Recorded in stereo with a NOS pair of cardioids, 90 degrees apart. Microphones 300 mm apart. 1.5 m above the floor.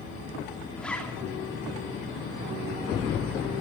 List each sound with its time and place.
0.8 s a zipper: 5° left, 2.5 m